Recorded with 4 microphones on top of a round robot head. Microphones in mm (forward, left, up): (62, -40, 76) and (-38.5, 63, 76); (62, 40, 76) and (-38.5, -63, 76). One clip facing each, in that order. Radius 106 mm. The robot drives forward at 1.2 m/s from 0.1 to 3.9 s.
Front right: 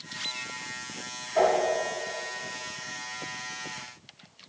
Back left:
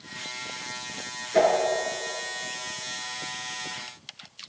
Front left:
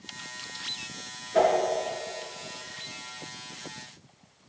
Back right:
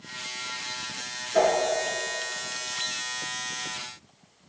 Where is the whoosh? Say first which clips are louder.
Back left 2 dB, even; 135° left, 4.5 m.